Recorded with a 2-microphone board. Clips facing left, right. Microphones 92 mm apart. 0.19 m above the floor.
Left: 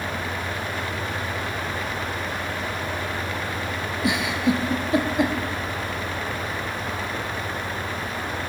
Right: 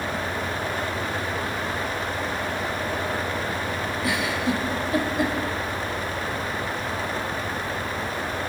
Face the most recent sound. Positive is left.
turn(degrees=20)  # may be behind; listen again after turning